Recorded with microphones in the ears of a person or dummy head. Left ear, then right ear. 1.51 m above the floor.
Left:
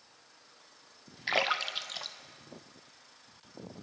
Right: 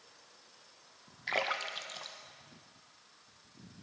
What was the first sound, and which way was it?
A splash, 20° left (ahead or behind).